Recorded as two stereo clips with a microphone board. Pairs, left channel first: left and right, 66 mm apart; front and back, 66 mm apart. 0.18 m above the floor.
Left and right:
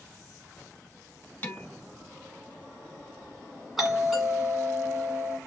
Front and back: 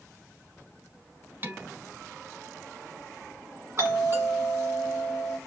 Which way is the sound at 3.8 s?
175° right.